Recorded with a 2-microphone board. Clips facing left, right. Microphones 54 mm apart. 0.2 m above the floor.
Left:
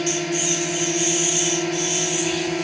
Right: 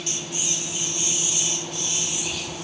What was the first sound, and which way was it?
A drone, 70° left (ahead or behind).